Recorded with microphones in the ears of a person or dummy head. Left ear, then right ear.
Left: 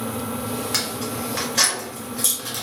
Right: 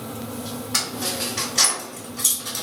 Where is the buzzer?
I don't hear a buzzer.